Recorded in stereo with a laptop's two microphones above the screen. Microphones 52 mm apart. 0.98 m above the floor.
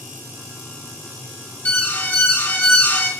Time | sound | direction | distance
1.6 | an alarm | 35° left (ahead or behind) | 3 m